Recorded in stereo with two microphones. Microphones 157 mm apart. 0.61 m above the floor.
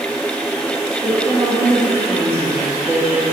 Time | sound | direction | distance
1.0 | a woman speaking | 10° right (ahead or behind) | 6.5 m